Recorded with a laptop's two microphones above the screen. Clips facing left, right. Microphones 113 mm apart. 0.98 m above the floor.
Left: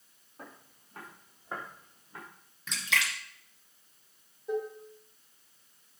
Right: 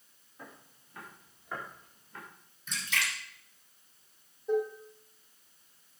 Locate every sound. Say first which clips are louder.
0.4 s footsteps: left 1 dB; 40° left (ahead or behind), 5 m; by 2.2 s 20° left (ahead or behind), 5 m
2.7 s a splash: left 2 dB; 90° left, 1.6 m
4.5 s dishes clattering: right 4 dB; 5° left (ahead or behind), 2 m